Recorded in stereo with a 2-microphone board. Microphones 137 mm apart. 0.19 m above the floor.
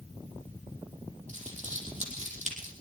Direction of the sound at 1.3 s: 55° right (ahead or behind).